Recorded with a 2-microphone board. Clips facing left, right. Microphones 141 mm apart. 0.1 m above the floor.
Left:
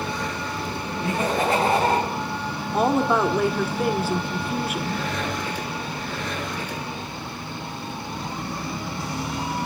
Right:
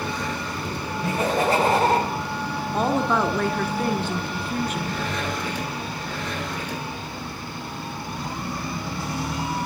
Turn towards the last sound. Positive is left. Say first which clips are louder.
# left 2 dB
turn(degrees=10)  # may be behind; listen again after turning